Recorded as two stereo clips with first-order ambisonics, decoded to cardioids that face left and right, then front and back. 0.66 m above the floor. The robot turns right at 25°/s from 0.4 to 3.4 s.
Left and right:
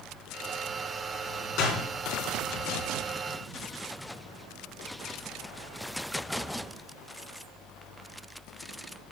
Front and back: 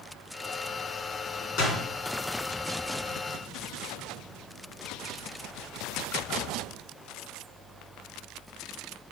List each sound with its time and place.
1.6 s a door slam: 45° left, 4.5 m; by 1.9 s 55° left, 4.5 m